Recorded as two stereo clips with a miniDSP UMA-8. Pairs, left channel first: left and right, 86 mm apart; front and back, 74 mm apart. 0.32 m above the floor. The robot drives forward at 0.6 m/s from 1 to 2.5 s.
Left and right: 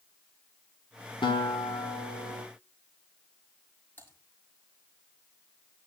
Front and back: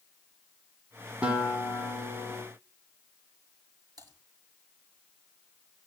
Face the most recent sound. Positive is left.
turn(degrees=155)